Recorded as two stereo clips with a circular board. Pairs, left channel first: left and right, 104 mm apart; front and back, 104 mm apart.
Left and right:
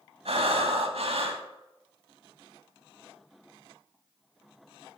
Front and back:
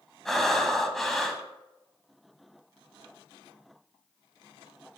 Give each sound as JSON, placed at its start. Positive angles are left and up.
{"t": 0.2, "sound": "breathing", "azimuth_deg": -85, "distance_m": 0.9}